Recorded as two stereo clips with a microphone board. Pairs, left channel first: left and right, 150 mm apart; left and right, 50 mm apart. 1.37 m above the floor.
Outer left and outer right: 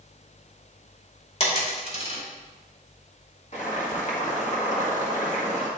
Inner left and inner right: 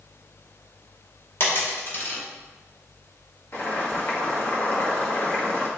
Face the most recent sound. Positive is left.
turn(degrees=50)  # may be behind; listen again after turning